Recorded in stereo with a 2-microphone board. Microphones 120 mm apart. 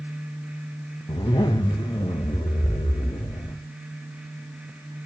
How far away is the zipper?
About 1.8 m.